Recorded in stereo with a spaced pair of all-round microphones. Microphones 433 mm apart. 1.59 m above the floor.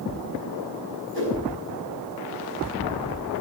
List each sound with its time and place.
1.1 s a whoosh: 30° right (ahead or behind), 5 m